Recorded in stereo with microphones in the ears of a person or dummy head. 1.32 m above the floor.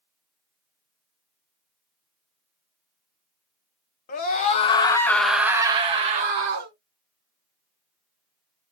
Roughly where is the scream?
Left.